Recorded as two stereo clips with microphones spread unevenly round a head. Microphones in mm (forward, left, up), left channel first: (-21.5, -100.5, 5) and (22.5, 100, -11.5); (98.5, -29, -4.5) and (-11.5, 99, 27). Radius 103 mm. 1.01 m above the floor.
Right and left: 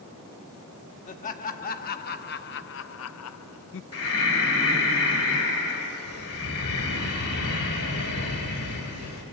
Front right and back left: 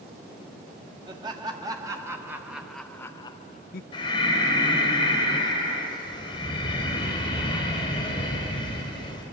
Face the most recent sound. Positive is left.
turn(degrees=-120)